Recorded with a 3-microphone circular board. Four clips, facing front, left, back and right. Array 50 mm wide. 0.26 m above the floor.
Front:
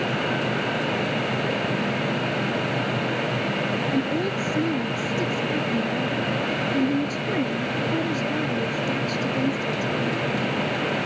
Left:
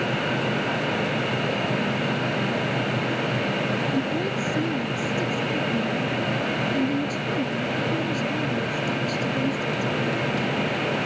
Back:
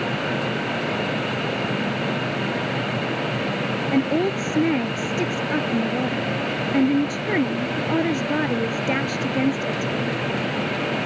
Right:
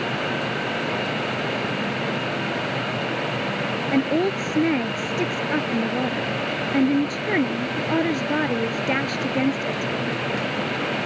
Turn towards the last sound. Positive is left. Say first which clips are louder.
# right 4 dB, back 3 dB
turn(degrees=-125)